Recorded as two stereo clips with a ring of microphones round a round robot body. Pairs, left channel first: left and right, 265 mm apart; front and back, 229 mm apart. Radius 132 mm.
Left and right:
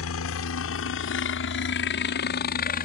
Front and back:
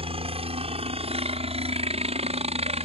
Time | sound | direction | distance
0.0 | a helicopter | 120° left | ?